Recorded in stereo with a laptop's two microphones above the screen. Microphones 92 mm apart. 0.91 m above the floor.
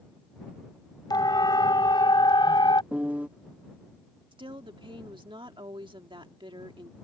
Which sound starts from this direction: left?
A siren, at 1.1 s.